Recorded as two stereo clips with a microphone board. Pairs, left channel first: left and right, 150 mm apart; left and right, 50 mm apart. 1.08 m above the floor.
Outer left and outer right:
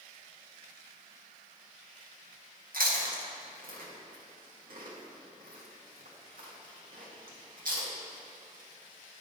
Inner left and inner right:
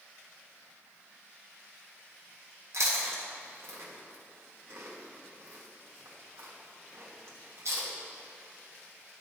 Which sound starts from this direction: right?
Chewing, at 2.7 s.